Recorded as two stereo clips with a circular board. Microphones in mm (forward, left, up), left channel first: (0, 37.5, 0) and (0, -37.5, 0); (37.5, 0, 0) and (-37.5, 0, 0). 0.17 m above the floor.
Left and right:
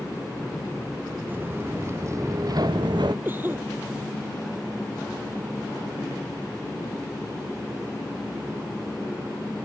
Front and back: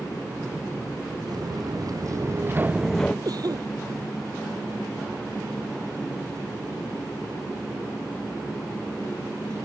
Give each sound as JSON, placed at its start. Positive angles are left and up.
{"t": 1.3, "sound": "footsteps", "azimuth_deg": -155}
{"t": 3.2, "sound": "a cough", "azimuth_deg": -155}